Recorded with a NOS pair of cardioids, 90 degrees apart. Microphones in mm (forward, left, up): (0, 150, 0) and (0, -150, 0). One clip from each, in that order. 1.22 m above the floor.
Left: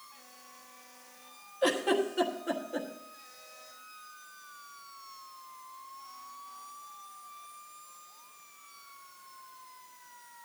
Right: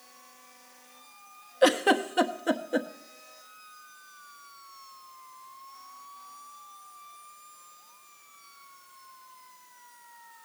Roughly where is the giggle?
Ahead right.